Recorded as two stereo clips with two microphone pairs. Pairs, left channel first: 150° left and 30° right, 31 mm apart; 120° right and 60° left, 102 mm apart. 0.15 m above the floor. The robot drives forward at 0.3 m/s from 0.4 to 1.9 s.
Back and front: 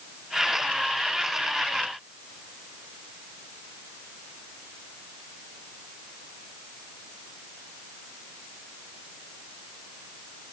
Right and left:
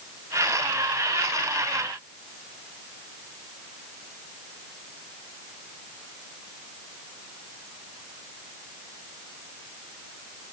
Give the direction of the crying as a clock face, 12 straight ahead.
I don't hear crying.